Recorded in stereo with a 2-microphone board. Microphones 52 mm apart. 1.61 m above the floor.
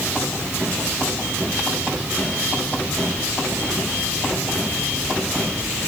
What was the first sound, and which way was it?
Only background noise.